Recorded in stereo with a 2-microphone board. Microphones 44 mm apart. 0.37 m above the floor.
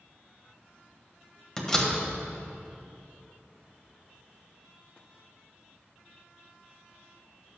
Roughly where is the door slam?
Centre.